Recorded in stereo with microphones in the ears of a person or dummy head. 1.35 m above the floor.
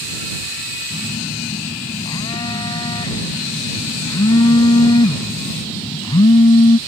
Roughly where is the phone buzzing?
Left.